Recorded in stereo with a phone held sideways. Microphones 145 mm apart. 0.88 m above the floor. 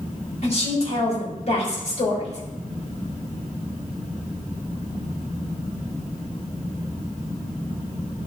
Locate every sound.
0.4 s a woman speaking: 50° left (ahead or behind), 4 m